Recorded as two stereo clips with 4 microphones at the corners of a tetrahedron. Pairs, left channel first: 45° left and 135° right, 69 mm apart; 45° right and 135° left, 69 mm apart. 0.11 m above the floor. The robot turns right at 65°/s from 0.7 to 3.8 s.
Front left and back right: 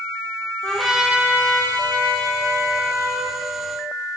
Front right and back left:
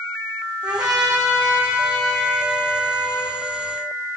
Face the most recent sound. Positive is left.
turn(degrees=-35)